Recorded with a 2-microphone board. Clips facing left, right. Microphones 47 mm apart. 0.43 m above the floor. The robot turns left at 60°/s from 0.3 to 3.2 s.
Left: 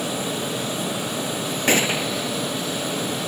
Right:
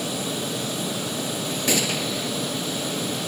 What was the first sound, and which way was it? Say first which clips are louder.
A gunshot: left 5 dB; 45° left.